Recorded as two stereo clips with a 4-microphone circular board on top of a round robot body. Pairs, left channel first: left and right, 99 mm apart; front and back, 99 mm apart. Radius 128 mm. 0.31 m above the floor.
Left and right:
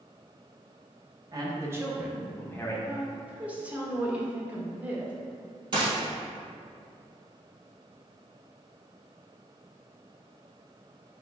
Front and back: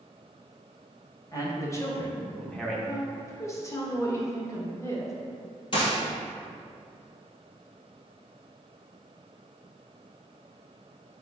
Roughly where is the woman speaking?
Ahead right.